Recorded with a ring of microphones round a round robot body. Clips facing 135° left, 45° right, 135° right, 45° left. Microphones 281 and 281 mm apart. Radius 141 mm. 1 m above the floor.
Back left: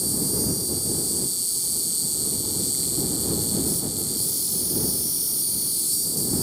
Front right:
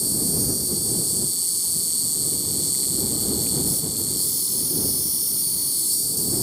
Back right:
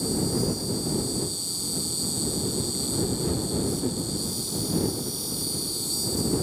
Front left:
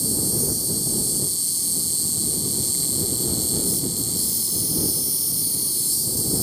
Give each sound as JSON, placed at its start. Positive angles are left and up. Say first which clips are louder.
{"t": 0.0, "sound": "an insect", "louder": "even, back right 2 dB", "azimuth_deg": 35}